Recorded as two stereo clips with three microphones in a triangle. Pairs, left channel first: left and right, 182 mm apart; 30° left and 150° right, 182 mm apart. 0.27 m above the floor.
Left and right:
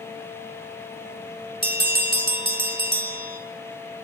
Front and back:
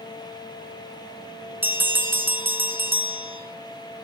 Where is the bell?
70° right, 1.3 m.